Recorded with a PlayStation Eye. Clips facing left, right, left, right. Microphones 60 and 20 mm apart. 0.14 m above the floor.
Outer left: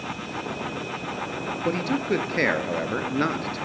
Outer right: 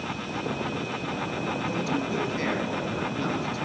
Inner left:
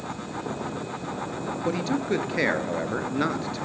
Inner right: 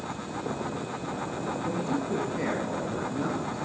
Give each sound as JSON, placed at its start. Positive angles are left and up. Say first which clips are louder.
{"t": 1.6, "sound": "a man speaking", "louder": "outer left 7 dB, inner left 5 dB", "side_deg": 60, "distance_m": 1.9}